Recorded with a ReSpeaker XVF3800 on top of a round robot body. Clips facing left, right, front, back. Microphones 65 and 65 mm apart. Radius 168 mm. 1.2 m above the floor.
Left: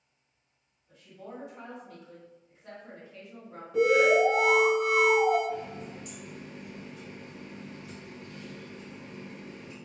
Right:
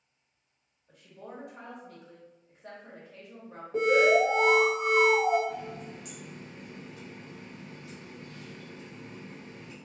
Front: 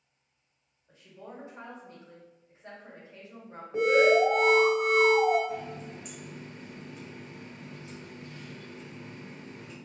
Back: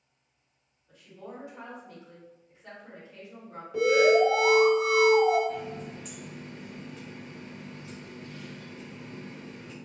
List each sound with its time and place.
0.9 s a woman speaking: 60° right, 1.5 m
3.7 s an alarm: 50° right, 1.7 m
5.5 s a running tap: 85° right, 1.5 m